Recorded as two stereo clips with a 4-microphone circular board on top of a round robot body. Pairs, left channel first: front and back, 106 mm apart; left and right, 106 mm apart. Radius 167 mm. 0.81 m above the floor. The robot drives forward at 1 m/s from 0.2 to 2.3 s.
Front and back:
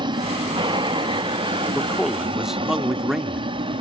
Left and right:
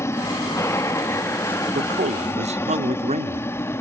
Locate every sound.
0.0 s an aircraft: 150° left
1.8 s a man speaking: 85° right; by 3.5 s 95° right